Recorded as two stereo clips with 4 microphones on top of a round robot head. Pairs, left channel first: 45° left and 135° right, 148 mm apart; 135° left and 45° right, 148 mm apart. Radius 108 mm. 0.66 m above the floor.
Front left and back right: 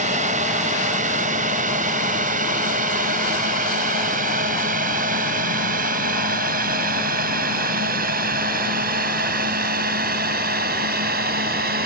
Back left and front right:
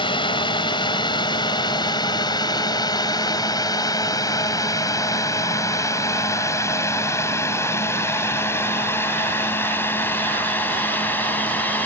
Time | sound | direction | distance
0.0 | a drone | 170° right | ?